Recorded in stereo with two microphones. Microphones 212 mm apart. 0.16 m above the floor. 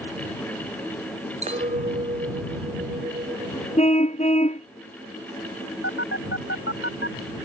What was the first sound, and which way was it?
A clink, 30° right (ahead or behind).